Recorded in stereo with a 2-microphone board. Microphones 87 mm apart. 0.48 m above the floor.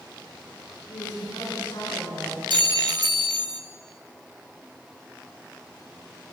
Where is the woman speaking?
70° left (ahead or behind), 4.5 m.